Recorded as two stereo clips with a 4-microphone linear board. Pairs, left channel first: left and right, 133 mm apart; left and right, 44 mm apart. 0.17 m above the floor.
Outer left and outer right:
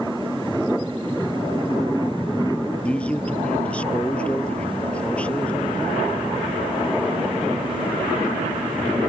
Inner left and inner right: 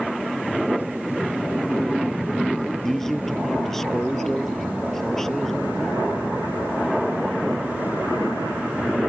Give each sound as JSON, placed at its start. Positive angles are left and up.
{"t": 2.8, "sound": "a man speaking", "side_deg": 10}